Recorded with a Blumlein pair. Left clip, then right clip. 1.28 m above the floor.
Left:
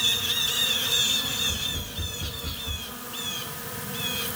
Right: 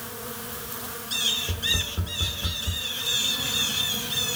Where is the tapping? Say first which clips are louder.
Right 4 dB; 30° right, 1.1 m.